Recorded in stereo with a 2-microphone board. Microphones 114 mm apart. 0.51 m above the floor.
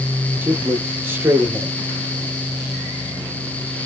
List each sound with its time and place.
0.4 s a man speaking: 20° right (ahead or behind), 0.9 m